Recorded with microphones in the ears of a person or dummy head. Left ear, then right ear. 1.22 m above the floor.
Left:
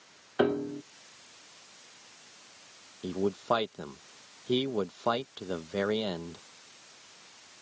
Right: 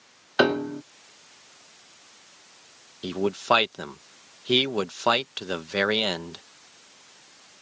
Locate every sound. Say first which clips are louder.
0.4 s a piano: right 6 dB; 65° right (ahead or behind)
3.0 s a man speaking: right 5 dB; 60° right (ahead or behind)